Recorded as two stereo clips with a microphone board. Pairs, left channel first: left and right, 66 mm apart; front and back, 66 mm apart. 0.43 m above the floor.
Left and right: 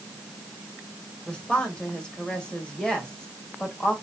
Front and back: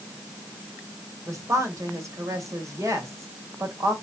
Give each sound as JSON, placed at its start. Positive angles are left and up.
{"t": 1.3, "sound": "a woman speaking", "azimuth_deg": 165, "distance_m": 2.0}